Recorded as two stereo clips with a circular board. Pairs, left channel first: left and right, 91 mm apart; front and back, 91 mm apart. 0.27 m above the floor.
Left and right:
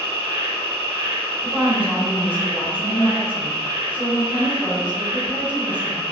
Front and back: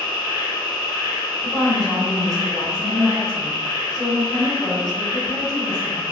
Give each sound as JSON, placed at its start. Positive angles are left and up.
{"t": 0.0, "sound": "an insect", "azimuth_deg": -60, "distance_m": 1.0}
{"t": 1.4, "sound": "a woman speaking", "azimuth_deg": -70, "distance_m": 1.0}